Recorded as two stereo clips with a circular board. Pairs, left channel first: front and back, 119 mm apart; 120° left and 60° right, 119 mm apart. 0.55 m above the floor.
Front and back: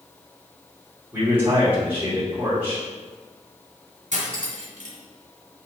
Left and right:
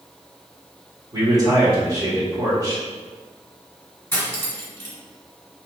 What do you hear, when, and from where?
1.1 s a man speaking: 110° right, 2.0 m
4.1 s cutlery clinking: 165° right, 1.5 m